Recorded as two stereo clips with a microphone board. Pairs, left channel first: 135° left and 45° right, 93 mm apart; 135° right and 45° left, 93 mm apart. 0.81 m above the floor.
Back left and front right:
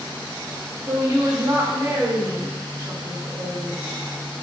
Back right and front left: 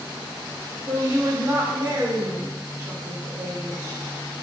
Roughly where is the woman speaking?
Ahead.